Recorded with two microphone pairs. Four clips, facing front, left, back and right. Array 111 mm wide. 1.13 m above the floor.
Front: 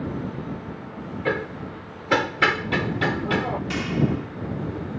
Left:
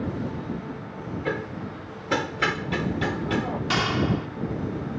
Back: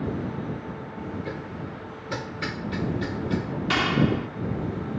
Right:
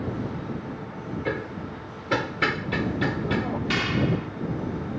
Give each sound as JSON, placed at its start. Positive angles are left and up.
{"t": 1.2, "sound": "hammering", "azimuth_deg": 5}
{"t": 3.7, "sound": "a clap", "azimuth_deg": 135}